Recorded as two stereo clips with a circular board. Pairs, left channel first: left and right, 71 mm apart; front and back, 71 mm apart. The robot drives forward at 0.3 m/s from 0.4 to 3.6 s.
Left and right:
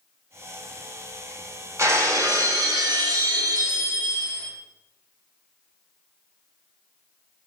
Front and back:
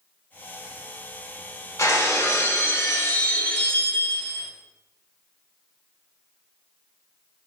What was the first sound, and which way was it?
Breaking glass, 45° right.